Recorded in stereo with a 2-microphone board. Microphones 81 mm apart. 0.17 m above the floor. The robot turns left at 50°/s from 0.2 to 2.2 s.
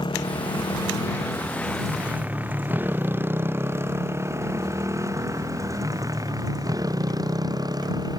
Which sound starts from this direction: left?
A motorcycle, at 0.0 s.